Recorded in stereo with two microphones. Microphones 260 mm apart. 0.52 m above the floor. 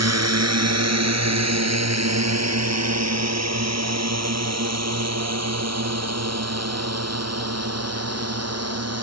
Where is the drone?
75° right (ahead or behind); by 9.0 s 70° right (ahead or behind).